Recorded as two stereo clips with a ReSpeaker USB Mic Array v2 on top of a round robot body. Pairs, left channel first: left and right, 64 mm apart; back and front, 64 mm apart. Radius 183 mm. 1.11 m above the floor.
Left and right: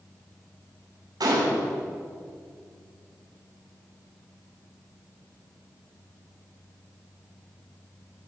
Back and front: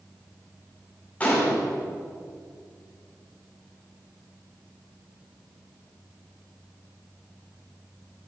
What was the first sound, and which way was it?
A gunshot, 110° right.